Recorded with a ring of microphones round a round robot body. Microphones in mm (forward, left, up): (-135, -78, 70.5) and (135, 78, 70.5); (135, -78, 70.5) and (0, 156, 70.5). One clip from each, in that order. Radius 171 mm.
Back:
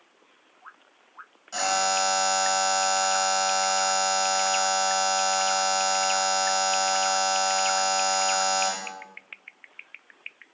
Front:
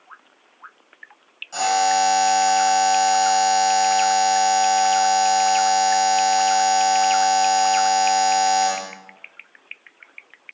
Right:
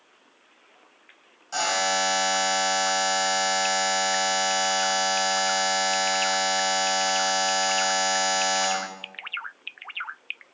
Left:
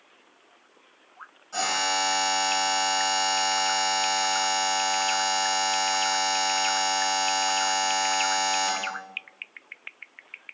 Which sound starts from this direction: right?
A buzzer, at 1.5 s.